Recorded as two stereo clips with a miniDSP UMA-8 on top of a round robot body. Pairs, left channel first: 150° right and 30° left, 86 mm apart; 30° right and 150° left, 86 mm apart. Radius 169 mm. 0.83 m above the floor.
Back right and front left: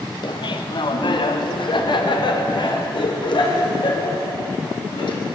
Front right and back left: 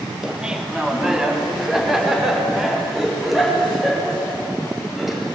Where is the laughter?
130° right, 2.5 m; by 5.2 s 125° right, 7 m.